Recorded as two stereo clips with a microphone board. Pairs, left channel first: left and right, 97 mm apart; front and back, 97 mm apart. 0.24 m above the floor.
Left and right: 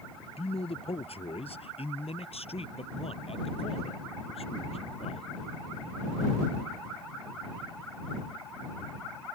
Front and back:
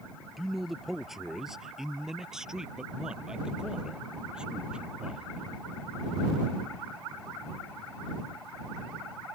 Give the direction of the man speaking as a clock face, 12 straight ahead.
9 o'clock.